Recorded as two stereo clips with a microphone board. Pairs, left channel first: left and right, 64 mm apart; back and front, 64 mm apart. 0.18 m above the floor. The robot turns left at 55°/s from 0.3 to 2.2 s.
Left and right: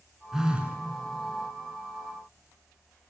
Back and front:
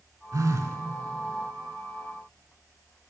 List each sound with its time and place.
0.3 s a phone buzzing: 10° right, 0.8 m; by 0.8 s 35° right, 0.8 m